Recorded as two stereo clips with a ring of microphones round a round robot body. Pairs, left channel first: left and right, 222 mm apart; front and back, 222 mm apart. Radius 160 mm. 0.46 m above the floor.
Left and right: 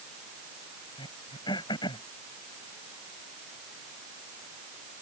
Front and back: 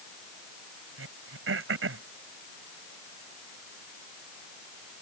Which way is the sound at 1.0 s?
165° left.